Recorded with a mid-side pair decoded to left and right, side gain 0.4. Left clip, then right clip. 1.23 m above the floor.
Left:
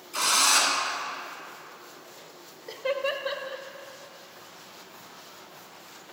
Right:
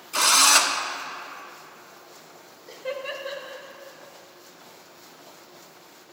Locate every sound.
0.1 s a drill: 70° right, 1.3 m
2.7 s laughter: 45° left, 1.2 m